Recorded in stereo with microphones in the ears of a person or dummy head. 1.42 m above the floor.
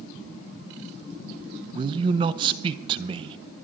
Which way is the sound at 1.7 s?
30° right (ahead or behind).